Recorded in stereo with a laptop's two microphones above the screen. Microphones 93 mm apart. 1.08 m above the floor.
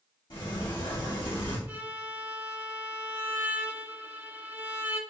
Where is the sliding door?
70° left (ahead or behind), 2.5 m.